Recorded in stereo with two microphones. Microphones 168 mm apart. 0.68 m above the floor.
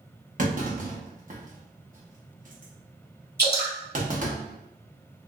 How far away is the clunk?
About 0.7 m.